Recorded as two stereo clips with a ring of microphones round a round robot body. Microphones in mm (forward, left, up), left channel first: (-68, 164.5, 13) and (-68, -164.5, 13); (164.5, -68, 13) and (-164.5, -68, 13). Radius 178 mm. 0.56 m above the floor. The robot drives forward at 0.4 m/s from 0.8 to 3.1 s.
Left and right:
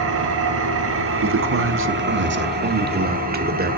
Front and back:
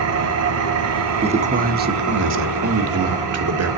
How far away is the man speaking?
About 1.0 m.